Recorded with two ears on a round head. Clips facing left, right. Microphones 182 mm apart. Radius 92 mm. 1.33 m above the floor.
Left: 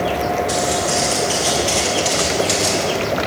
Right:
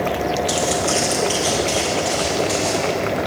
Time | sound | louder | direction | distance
0.5 | footsteps | left 1 dB | 45° right (ahead or behind) | 1.9 m